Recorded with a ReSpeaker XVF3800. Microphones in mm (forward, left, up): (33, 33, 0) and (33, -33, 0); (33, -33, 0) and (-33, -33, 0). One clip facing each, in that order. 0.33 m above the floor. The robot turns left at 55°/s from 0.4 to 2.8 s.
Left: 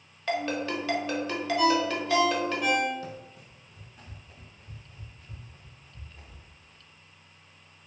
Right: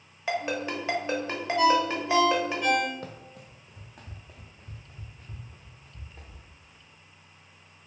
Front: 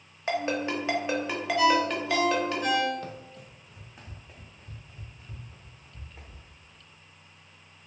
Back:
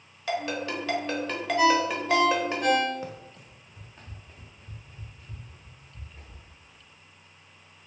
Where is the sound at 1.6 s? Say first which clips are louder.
Right 3 dB, back 1 dB; 125° right, 1.1 m; by 2.9 s 165° left, 1.1 m.